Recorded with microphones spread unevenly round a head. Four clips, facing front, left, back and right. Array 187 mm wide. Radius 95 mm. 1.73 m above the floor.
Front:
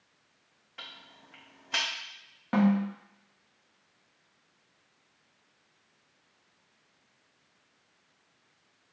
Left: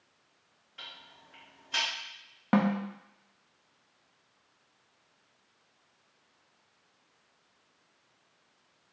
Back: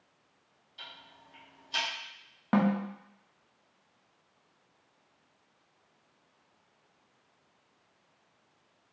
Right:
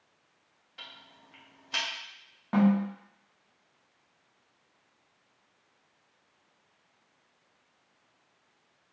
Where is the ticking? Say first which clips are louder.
Even, front 1 dB; 15° right, 1.1 m.